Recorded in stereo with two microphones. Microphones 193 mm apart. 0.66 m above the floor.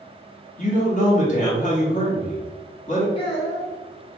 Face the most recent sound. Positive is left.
turn(degrees=30)  # may be behind; listen again after turning